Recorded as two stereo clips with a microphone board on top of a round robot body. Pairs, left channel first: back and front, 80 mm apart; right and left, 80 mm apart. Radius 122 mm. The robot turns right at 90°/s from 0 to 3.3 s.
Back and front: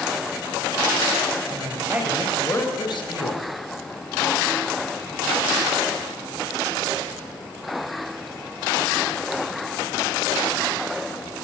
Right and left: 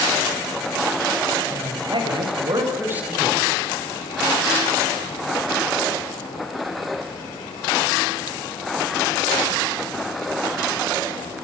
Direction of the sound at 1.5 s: 30° left.